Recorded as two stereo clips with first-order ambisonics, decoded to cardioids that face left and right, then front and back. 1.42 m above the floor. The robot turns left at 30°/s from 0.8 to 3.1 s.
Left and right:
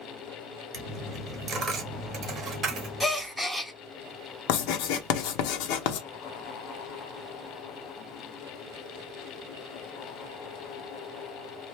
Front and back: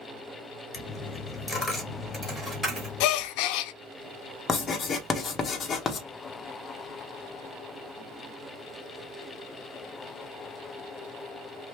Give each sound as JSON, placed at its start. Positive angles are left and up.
{"t": 0.7, "sound": "a dropped coin", "azimuth_deg": -70, "distance_m": 1.3}
{"t": 3.0, "sound": "a gasp", "azimuth_deg": 10, "distance_m": 0.5}
{"t": 4.5, "sound": "writing", "azimuth_deg": 70, "distance_m": 0.8}